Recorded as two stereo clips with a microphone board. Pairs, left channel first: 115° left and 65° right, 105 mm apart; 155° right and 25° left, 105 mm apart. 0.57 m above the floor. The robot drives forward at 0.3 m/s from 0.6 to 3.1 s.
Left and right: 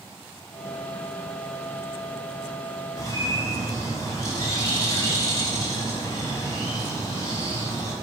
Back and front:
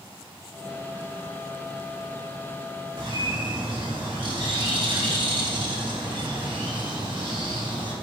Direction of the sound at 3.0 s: 55° left.